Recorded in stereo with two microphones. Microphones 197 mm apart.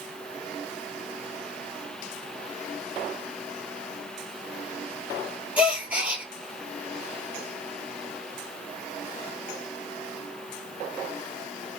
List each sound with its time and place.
5.6 s a gasp: 5° right (ahead or behind), 0.9 m